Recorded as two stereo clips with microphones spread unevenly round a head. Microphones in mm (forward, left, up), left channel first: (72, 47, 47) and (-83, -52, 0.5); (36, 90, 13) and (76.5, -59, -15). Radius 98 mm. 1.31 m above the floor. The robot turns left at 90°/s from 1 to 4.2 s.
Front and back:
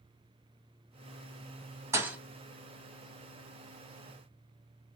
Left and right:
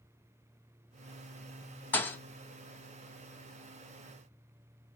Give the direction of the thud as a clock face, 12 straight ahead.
8 o'clock.